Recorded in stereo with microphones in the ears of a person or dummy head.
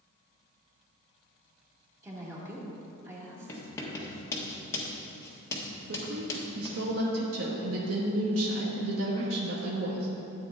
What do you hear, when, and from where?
2.0 s a woman speaking: 10° right (ahead or behind), 2.5 m
3.5 s writing: 15° left (ahead or behind), 1.4 m
5.9 s a woman speaking: 75° right (ahead or behind), 1.2 m